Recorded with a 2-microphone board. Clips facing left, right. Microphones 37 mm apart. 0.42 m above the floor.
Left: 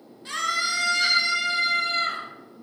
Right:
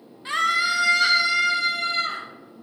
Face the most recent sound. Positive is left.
turn(degrees=0)  # may be behind; listen again after turning